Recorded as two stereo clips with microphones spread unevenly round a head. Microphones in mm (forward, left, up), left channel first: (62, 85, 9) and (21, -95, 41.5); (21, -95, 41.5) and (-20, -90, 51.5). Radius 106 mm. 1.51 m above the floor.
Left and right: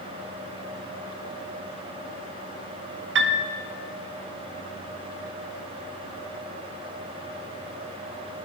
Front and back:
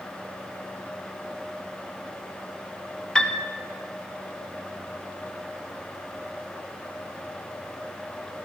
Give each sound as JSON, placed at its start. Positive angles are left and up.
{"t": 3.1, "sound": "a piano", "azimuth_deg": -75, "distance_m": 0.9}